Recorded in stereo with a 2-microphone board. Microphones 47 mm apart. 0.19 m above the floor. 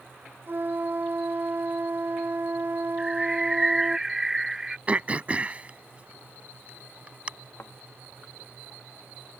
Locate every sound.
0.5 s a flute: 45° right (ahead or behind)
3.0 s a bird: 10° right (ahead or behind)
4.9 s throat clearing: 30° right (ahead or behind)
7.6 s a thud: 50° left (ahead or behind)